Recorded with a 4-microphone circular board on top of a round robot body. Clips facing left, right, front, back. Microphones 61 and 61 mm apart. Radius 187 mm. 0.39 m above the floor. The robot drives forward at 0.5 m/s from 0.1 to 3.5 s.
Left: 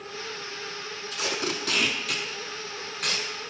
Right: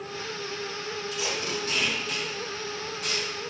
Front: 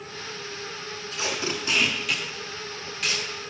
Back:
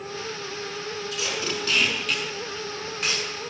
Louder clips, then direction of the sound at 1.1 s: Left 3 dB, front 2 dB; 55° left.